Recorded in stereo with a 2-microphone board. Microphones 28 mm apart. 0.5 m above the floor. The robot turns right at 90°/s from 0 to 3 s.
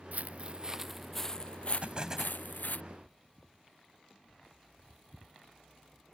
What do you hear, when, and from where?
0.1 s footsteps: 65° right (ahead or behind); by 2.8 s 60° left (ahead or behind)
1.8 s an explosion: 50° right; by 2.4 s 5° left